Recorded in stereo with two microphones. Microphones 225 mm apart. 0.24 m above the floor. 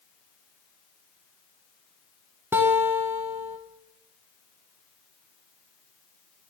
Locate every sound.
2.5 s a guitar: 10° right (ahead or behind), 1.3 m